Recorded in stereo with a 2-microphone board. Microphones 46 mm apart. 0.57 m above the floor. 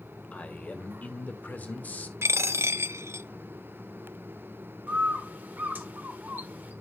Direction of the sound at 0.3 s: 35° left (ahead or behind).